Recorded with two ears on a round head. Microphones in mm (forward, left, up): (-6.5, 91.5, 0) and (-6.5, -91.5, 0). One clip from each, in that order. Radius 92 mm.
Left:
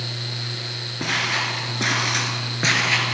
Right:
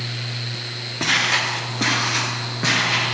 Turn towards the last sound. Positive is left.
turn(degrees=40)  # may be behind; listen again after turning